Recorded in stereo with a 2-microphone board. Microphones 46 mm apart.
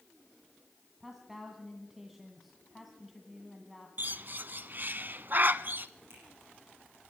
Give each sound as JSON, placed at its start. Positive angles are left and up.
{"t": 1.0, "sound": "a woman speaking", "side_deg": -5, "distance_m": 2.0}
{"t": 4.0, "sound": "a bird", "side_deg": -45, "distance_m": 0.6}
{"t": 6.1, "sound": "a finger snap", "side_deg": -55, "distance_m": 9.5}